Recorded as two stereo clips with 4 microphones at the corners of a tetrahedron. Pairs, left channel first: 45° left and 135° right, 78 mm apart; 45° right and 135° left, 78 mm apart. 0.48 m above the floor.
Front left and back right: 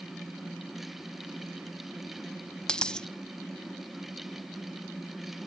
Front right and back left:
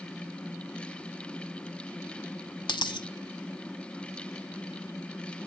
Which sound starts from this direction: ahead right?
A dropped coin, at 2.7 s.